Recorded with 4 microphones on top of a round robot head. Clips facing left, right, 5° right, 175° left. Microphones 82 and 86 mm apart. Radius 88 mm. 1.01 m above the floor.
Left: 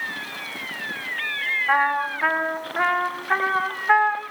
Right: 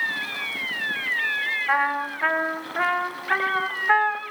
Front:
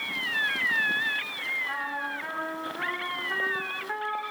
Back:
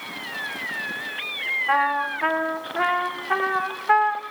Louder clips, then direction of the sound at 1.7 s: Left 3 dB, back 15 dB; 175° left.